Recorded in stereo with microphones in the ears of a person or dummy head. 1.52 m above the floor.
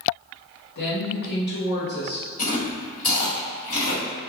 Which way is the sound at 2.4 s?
45° left (ahead or behind).